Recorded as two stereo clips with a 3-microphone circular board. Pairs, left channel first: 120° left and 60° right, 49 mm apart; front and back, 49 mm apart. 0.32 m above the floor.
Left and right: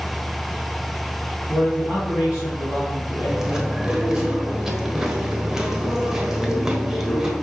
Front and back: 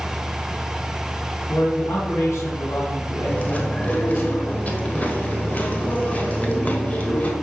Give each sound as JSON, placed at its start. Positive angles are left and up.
{"t": 1.5, "sound": "a man speaking", "azimuth_deg": 25, "distance_m": 2.5}
{"t": 3.2, "sound": "chewing", "azimuth_deg": 10, "distance_m": 1.1}